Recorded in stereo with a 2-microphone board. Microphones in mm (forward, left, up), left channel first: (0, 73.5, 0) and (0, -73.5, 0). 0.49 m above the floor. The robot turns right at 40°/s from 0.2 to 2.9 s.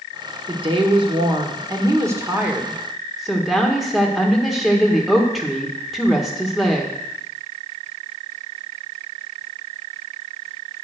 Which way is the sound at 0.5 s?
100° right.